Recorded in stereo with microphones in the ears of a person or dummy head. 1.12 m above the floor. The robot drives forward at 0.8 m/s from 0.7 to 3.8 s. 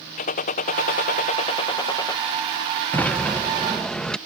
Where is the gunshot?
40° left (ahead or behind); by 2.2 s 20° left (ahead or behind).